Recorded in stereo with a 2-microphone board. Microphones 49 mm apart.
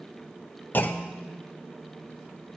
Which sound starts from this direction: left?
A clunk, at 0.7 s.